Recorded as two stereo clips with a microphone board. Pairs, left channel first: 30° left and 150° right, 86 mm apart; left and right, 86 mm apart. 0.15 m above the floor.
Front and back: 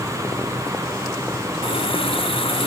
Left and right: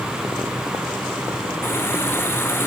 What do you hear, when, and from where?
1.6 s a running tap: 25° left